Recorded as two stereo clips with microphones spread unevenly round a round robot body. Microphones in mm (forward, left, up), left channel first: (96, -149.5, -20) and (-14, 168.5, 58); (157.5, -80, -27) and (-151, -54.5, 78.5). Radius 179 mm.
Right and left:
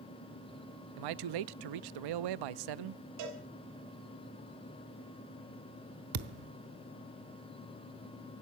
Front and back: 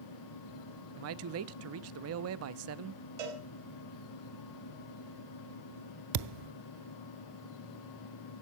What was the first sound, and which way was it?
A man speaking, 120° left.